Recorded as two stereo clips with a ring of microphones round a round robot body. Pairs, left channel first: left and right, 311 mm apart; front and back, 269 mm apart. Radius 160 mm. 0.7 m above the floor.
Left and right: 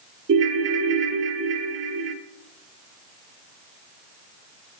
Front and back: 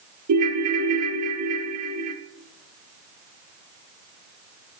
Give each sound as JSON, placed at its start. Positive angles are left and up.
{"t": 0.3, "sound": "a ringtone", "azimuth_deg": -145, "distance_m": 1.0}